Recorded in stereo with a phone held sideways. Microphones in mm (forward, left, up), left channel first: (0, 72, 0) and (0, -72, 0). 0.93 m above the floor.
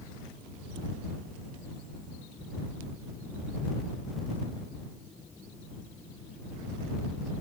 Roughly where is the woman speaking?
I don't hear a woman speaking.